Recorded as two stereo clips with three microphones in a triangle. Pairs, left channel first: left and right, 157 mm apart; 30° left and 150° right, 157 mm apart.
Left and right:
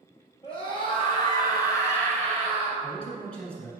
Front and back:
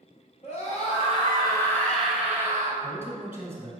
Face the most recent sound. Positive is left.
turn(degrees=165)